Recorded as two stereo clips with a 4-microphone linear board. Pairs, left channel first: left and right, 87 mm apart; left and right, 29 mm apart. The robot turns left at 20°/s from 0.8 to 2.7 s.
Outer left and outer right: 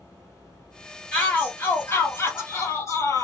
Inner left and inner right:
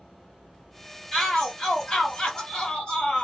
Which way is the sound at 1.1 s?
165° left.